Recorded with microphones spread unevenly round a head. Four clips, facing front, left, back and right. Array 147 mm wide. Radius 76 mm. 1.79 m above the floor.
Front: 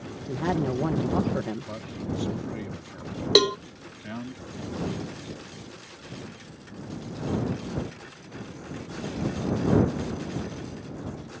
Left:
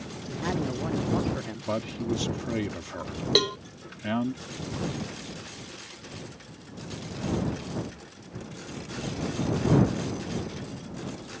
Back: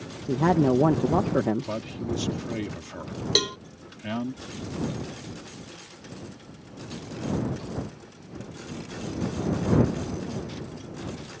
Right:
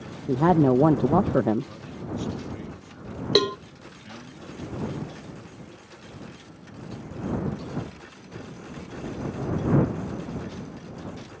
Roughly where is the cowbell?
Ahead.